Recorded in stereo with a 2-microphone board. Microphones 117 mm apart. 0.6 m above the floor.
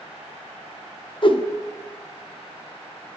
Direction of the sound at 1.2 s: 45° left (ahead or behind).